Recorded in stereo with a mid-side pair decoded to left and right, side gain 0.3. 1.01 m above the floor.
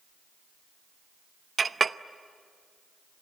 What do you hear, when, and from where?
1.6 s a clink: 50° right, 0.7 m